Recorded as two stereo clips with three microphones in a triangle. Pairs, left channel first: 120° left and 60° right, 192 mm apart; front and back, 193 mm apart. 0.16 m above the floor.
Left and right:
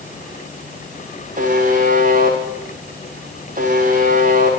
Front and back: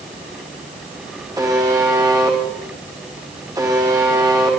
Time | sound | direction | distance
1.4 | a buzzer | 105° right | 8 m